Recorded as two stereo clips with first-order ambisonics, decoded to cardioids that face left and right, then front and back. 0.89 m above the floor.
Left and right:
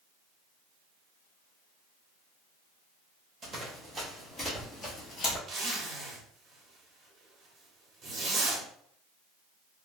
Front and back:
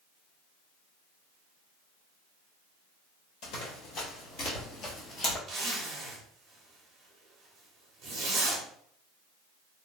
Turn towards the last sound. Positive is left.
turn(degrees=-130)